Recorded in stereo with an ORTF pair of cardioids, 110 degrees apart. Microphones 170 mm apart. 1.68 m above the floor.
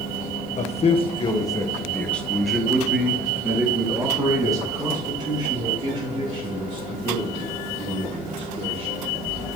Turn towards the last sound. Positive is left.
turn(degrees=-35)